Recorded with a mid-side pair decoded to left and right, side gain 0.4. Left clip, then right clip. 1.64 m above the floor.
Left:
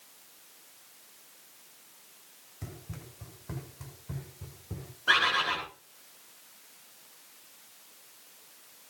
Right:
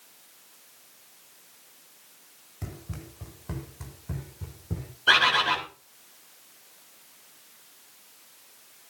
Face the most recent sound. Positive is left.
turn(degrees=-65)